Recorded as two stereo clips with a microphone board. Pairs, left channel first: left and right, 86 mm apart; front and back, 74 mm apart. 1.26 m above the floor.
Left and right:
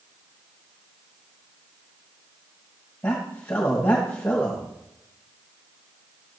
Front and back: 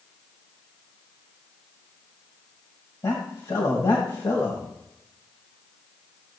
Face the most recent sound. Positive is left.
turn(degrees=25)